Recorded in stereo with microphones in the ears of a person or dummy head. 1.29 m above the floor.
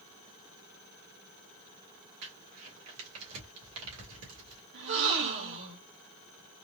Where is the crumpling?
80° right, 1.7 m.